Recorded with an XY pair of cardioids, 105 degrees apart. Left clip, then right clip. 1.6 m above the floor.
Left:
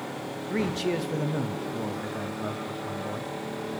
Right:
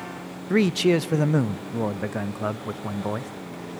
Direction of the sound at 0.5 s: 60° right.